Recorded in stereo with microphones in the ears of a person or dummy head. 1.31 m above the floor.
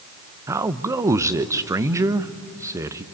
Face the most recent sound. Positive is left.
turn(degrees=-20)  # may be behind; listen again after turning